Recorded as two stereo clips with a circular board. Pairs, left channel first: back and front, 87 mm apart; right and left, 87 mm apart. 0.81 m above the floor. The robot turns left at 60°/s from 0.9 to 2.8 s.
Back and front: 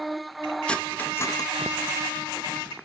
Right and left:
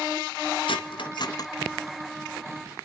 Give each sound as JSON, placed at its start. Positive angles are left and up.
{"t": 0.7, "sound": "cutlery clinking", "azimuth_deg": -105, "distance_m": 1.1}